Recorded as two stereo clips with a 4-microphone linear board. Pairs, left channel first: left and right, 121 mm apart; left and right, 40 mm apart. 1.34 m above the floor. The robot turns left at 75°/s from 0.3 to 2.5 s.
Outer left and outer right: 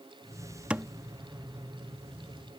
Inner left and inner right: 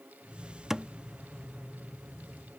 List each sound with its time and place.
0.7 s a thud: 10° right (ahead or behind); by 0.9 s 15° right (ahead or behind)